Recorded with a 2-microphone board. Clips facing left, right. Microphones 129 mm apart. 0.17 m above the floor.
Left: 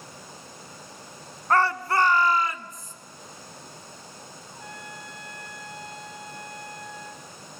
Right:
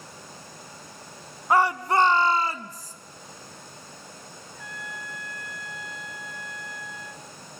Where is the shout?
10° right (ahead or behind), 1.2 m; by 2.9 s 40° right (ahead or behind), 1.6 m.